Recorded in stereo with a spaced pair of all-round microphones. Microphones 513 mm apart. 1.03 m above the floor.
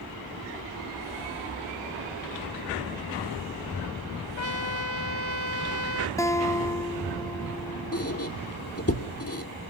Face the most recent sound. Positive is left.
turn(degrees=25)  # may be behind; listen again after turning